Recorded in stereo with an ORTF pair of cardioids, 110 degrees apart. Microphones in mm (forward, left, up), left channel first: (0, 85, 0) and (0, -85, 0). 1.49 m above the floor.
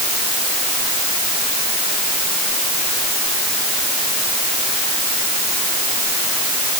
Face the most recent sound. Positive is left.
No sound to turn to.